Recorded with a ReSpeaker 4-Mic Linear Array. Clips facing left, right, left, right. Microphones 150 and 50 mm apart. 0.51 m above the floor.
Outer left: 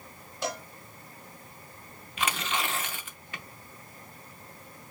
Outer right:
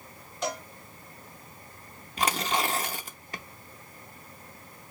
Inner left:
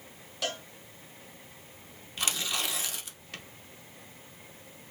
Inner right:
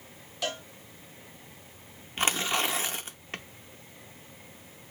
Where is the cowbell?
Centre (ahead or behind), 1.7 m.